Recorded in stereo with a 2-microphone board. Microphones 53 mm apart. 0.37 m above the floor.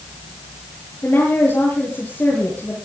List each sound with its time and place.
1.0 s a woman speaking: 40° left (ahead or behind), 7.5 m